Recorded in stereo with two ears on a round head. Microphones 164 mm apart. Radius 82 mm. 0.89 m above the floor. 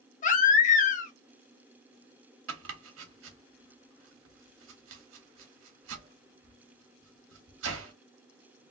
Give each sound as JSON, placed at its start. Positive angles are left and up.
{"t": 0.2, "sound": "a baby crying", "side_deg": 45, "distance_m": 0.7}
{"t": 2.5, "sound": "chopping", "side_deg": -80, "distance_m": 0.9}